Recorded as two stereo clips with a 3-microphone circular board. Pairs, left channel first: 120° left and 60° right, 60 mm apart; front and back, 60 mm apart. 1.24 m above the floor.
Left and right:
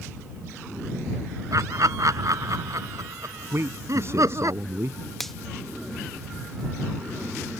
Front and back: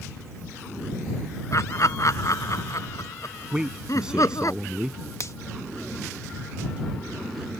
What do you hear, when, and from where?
1.5 s laughter: 35° right; by 4.5 s 30° right
3.5 s a man speaking: 100° right
5.2 s a finger snap: 35° left